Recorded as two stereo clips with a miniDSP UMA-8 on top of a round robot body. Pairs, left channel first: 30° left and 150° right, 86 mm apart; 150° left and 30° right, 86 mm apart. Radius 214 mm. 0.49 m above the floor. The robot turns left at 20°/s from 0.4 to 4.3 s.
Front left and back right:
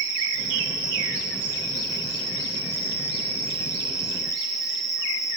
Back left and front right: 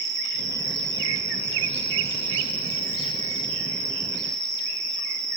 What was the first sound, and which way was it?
An insect, 160° right.